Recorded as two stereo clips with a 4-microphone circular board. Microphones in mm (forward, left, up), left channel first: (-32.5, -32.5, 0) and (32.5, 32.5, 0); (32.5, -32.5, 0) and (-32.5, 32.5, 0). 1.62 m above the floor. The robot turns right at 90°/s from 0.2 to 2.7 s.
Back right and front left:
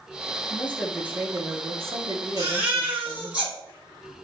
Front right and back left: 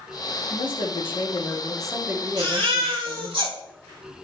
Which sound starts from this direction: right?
A woman speaking, at 0.5 s.